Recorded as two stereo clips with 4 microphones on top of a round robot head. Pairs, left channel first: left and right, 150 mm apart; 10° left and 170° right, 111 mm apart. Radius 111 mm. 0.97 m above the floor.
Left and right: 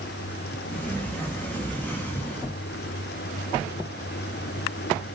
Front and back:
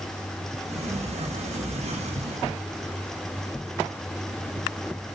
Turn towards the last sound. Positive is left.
turn(degrees=170)